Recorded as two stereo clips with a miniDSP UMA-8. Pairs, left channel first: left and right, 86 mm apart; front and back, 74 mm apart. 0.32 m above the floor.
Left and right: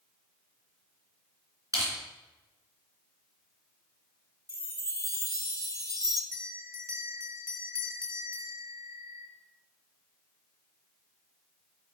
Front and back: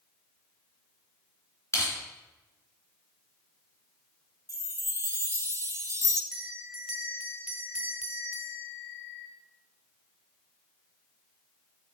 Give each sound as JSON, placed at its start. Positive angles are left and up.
{"t": 1.7, "sound": "crushing", "azimuth_deg": -45, "distance_m": 3.0}
{"t": 4.5, "sound": "a chime", "azimuth_deg": -130, "distance_m": 0.7}
{"t": 6.3, "sound": "a bell", "azimuth_deg": -105, "distance_m": 1.2}